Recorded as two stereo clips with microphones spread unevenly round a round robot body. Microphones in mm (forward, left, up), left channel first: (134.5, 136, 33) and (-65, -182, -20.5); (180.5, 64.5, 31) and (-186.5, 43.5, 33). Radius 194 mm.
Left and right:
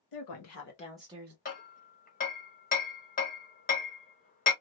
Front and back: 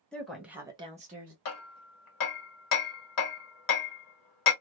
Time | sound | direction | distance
0.1 | a woman speaking | 90° left | 1.4 m
1.4 | hammering | 15° right | 1.1 m